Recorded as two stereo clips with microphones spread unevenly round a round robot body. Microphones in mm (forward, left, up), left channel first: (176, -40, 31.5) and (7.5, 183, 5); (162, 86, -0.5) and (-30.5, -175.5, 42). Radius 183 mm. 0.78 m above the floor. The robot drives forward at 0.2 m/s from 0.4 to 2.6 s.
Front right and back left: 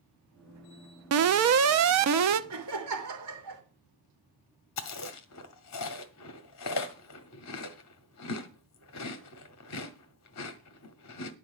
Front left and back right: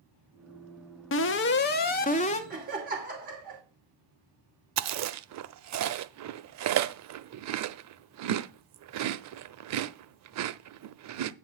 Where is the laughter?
165° left, 2.5 m.